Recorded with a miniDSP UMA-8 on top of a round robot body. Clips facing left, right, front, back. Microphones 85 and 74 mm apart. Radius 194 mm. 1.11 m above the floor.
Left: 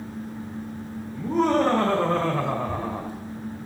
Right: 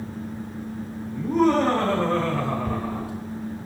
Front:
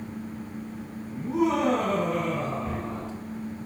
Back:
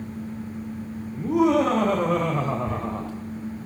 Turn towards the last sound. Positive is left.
turn(degrees=-75)